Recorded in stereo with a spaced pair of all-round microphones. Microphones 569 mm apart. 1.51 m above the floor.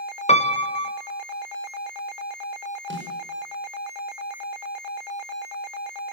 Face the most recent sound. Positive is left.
turn(degrees=-20)  # may be behind; listen again after turning